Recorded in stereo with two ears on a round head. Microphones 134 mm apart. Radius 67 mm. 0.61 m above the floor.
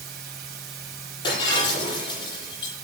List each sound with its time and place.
0.0 s running water: 75° right (ahead or behind), 2.5 m
1.2 s breaking glass: 30° left (ahead or behind), 10 m